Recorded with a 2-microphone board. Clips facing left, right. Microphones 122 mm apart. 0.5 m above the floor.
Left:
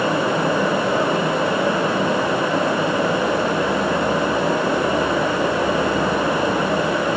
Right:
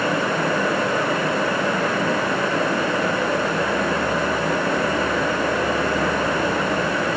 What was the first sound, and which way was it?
Only background noise.